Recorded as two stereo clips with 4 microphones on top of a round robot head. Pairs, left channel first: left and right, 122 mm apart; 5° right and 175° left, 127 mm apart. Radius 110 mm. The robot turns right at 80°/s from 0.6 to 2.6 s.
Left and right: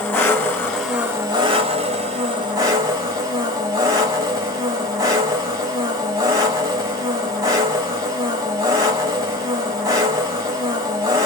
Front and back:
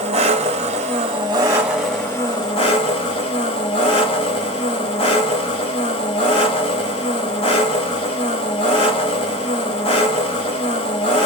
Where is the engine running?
160° left, 1.4 m; by 11.2 s 40° right, 1.4 m.